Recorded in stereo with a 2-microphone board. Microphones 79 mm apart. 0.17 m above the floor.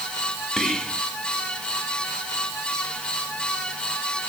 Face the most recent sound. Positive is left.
turn(degrees=5)  # may be behind; listen again after turning